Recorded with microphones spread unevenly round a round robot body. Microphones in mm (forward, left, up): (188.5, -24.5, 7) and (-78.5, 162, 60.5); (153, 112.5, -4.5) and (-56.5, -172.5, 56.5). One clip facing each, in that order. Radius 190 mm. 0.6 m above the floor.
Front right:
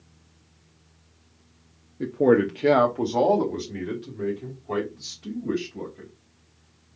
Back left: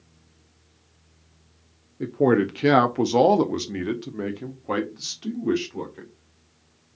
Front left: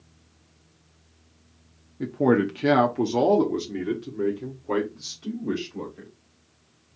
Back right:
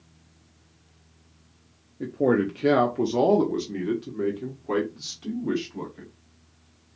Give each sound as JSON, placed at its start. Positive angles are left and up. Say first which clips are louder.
{"t": 2.0, "sound": "a man speaking", "louder": "front right 1 dB, front left 1 dB", "azimuth_deg": 35, "distance_m": 0.7}